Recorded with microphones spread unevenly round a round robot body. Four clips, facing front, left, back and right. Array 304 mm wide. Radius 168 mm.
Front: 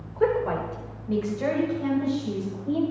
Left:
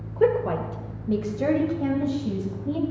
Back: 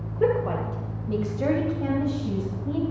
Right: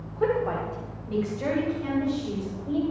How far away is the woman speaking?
About 1.3 m.